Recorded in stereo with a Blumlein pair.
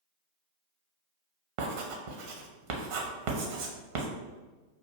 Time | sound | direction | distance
1.6 | writing | 45° right | 0.7 m